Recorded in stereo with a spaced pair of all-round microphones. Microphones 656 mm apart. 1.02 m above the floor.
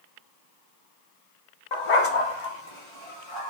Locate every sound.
1.7 s a dog barking: 45° left (ahead or behind), 0.7 m; by 3.5 s 40° left (ahead or behind), 1.7 m